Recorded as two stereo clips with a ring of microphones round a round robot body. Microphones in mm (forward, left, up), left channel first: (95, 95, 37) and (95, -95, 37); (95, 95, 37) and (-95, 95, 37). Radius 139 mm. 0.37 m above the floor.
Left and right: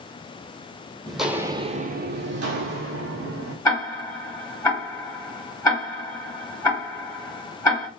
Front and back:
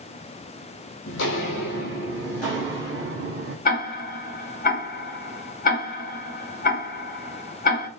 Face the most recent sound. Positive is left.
turn(degrees=20)